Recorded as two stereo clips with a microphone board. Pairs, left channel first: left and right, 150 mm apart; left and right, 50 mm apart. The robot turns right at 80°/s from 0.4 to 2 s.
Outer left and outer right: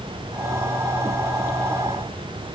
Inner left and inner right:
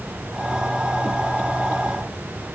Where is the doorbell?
No doorbell in this recording.